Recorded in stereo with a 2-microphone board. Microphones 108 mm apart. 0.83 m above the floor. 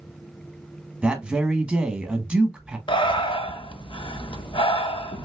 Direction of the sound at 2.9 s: 50° left (ahead or behind).